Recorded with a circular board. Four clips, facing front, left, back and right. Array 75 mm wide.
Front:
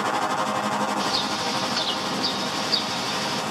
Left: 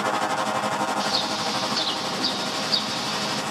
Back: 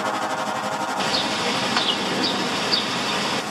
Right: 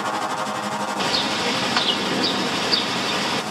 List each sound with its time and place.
1.0 s a bird: 125° right, 1.2 m